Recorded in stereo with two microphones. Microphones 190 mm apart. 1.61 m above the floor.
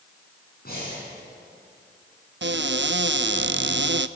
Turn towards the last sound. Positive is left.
turn(degrees=-70)  # may be behind; listen again after turning